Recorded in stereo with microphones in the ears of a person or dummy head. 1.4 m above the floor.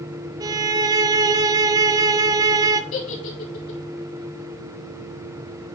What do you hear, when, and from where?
0.4 s a violin: 20° right (ahead or behind), 0.6 m
2.9 s a giggle: 85° left, 3.5 m